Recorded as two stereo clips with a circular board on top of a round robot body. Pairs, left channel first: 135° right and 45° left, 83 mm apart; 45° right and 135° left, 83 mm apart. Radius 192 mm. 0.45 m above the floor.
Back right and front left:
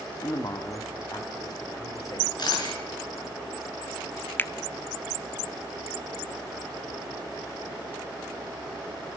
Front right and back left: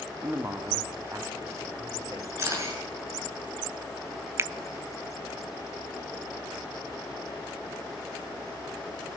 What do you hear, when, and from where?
0.2 s a man speaking: 165° right, 1.2 m; by 2.3 s 175° right, 3 m
2.4 s a camera shutter: 170° right, 6.5 m
4.4 s a finger snap: 175° left, 0.6 m